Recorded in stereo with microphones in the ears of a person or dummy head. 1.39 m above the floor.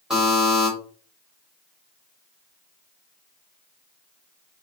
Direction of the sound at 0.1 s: Centre (ahead or behind).